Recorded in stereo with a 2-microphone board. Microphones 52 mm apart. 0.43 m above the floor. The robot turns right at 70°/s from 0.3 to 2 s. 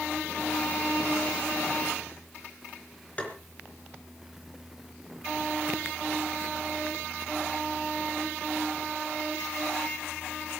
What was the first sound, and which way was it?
Tapping, 25° left (ahead or behind).